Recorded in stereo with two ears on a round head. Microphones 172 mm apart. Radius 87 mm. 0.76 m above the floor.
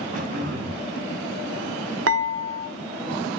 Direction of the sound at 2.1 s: 75° right (ahead or behind).